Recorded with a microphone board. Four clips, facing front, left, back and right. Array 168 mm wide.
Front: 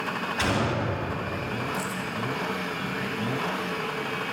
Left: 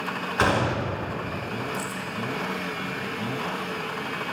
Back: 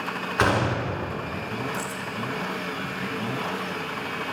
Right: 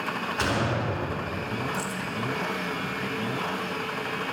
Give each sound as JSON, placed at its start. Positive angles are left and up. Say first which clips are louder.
{"t": 0.4, "sound": "a gunshot", "louder": "left 5 dB, back 4 dB", "azimuth_deg": 145, "distance_m": 1.4}
{"t": 1.7, "sound": "keys jangling", "louder": "even, front 1 dB", "azimuth_deg": 30, "distance_m": 0.9}